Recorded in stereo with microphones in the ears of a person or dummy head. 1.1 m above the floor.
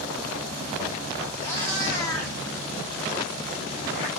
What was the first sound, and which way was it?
A cat meowing, 15° left (ahead or behind).